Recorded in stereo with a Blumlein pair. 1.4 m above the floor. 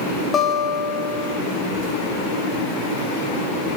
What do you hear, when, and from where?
0.3 s a guitar: 20° left, 1.7 m